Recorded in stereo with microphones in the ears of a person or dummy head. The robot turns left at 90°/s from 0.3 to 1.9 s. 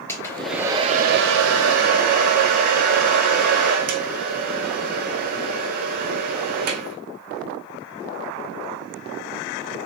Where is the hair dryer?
15° left, 0.9 m; by 7.0 s 130° right, 0.9 m.